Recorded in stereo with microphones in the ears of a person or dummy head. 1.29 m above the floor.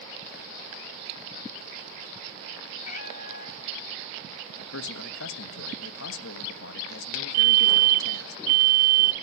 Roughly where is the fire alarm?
Right.